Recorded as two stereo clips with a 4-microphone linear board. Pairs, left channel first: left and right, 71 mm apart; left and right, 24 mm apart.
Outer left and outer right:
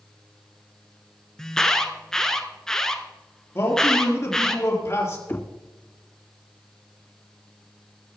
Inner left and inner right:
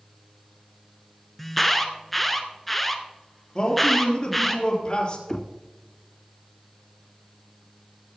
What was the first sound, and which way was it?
An alarm, 10° left (ahead or behind).